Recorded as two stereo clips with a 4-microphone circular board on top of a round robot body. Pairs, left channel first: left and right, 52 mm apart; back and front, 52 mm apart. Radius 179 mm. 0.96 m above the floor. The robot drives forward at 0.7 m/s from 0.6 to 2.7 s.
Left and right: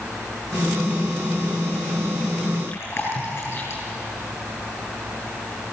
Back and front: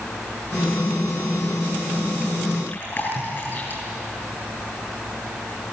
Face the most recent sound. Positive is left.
turn(degrees=130)